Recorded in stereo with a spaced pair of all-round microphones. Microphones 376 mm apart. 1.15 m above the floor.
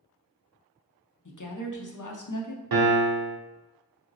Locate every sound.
1.2 s a woman speaking: 55° left (ahead or behind), 0.6 m
2.7 s a piano: 65° right (ahead or behind), 0.5 m